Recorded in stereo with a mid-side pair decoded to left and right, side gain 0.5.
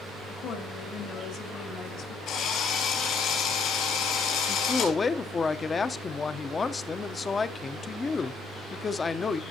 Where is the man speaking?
35° left, 0.8 m.